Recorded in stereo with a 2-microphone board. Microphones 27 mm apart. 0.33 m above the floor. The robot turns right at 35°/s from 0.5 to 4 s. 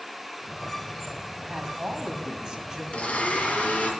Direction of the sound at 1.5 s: 75° right.